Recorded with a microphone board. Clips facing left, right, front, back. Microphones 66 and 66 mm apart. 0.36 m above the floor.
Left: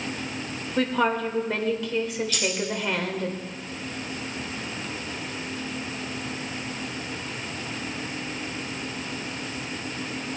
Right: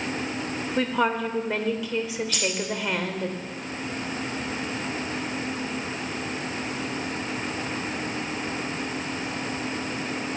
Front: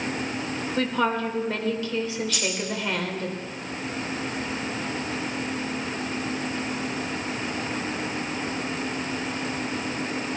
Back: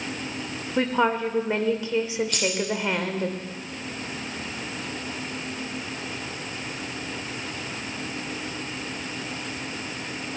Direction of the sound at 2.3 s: 140° right.